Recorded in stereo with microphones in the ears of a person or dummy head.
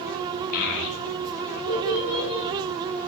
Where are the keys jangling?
I don't hear keys jangling.